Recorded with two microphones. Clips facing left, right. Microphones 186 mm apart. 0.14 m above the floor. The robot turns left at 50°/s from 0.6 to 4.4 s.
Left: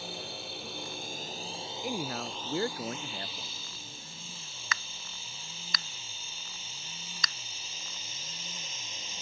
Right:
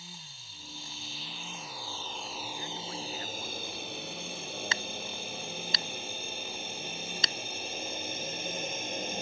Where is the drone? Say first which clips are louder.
Left 13 dB; 70° left (ahead or behind); by 9.2 s 60° right (ahead or behind).